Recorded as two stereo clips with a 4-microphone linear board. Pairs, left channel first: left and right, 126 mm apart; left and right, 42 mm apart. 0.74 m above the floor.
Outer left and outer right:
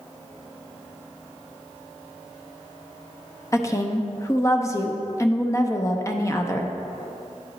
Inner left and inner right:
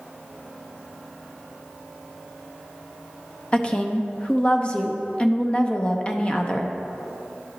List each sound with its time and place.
3.5 s a woman speaking: 25° left (ahead or behind), 0.5 m